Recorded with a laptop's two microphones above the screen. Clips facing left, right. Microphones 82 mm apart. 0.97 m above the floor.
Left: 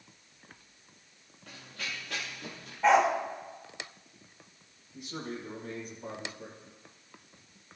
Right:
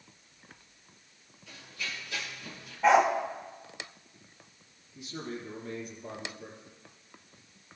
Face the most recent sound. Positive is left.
turn(degrees=80)